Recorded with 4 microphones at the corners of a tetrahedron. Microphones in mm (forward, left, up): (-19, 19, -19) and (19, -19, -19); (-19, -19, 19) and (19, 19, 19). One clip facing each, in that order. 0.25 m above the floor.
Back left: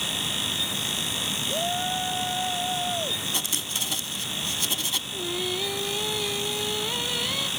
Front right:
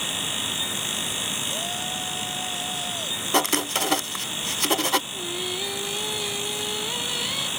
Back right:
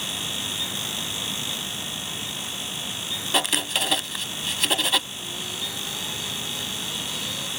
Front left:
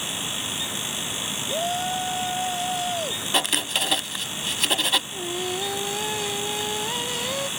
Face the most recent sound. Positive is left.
turn(degrees=45)